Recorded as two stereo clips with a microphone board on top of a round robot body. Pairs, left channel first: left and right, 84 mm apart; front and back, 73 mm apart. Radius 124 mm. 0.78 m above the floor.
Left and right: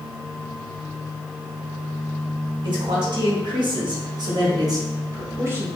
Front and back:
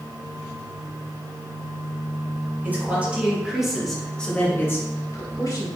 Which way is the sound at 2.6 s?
115° right.